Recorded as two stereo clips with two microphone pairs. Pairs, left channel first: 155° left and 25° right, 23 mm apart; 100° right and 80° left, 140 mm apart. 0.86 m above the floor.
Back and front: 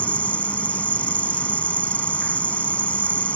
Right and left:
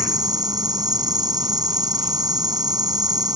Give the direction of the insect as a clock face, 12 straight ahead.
7 o'clock.